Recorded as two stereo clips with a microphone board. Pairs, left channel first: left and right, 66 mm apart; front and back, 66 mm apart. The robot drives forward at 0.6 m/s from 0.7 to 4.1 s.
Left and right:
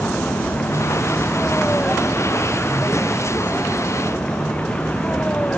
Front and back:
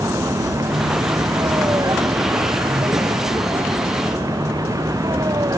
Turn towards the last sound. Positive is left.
turn(degrees=160)